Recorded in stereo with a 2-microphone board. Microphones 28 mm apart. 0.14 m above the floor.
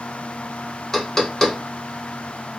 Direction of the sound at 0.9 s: 10° left (ahead or behind).